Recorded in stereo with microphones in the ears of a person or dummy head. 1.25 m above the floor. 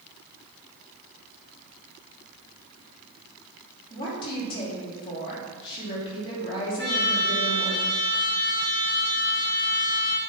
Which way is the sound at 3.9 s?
15° left (ahead or behind).